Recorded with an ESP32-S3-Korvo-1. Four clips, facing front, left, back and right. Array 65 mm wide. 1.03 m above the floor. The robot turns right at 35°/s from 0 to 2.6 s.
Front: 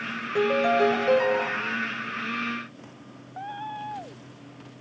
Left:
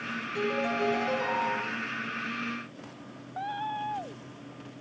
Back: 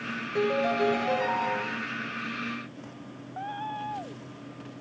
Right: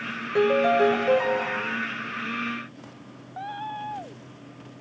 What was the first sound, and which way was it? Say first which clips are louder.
A piano: right 10 dB, front 4 dB; 70° right.